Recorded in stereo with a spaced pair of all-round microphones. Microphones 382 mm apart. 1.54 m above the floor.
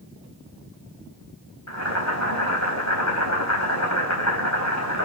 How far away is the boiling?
About 4 m.